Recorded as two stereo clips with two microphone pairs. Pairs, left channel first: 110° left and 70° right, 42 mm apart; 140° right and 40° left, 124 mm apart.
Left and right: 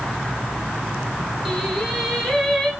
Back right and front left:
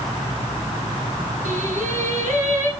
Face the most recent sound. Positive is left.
turn(degrees=30)